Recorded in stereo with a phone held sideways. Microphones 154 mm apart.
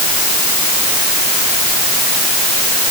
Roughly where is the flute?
No flute in this recording.